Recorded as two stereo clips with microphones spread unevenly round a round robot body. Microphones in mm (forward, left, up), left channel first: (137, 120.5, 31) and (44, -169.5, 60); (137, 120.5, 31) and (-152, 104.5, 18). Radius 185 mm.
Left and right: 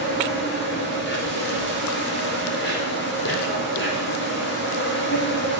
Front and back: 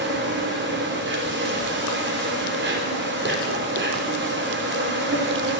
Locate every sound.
0.0 s an insect: 130° left, 3.5 m